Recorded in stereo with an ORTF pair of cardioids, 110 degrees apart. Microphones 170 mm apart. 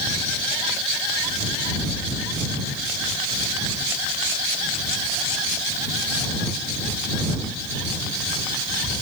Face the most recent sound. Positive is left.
No sound to turn to.